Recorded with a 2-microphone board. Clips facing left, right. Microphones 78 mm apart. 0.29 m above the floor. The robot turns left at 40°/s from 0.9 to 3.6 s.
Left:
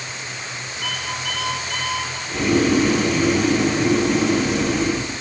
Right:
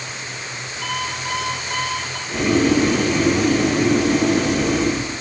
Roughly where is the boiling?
Ahead.